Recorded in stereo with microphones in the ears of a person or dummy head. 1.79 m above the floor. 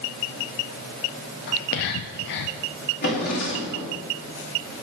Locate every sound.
1.5 s whispering: 65° left (ahead or behind), 0.7 m
3.0 s a drawer: 60° left (ahead or behind), 3 m